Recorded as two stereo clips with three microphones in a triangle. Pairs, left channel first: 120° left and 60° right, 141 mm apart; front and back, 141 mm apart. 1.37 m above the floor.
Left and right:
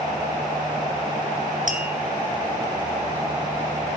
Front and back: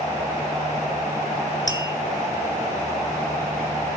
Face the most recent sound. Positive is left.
turn(degrees=-60)